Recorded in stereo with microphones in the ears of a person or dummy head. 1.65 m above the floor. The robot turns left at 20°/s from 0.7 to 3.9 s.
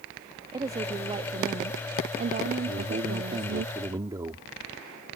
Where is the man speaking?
40° right (ahead or behind); by 4.4 s 15° right (ahead or behind).